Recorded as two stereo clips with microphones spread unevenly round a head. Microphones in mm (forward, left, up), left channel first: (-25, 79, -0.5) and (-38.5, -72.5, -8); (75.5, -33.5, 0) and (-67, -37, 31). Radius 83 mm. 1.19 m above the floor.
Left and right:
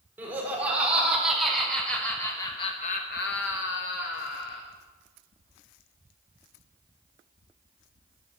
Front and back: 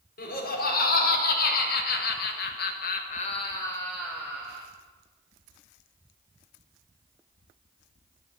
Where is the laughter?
15° right, 3.5 m; by 4.6 s 110° left, 1.7 m.